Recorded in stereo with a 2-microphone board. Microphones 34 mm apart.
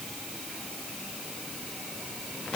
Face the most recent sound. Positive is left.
No sound to turn to.